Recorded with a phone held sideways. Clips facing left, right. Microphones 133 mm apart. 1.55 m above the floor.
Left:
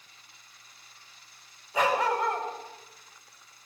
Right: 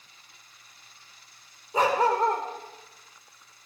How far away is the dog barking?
About 2.5 m.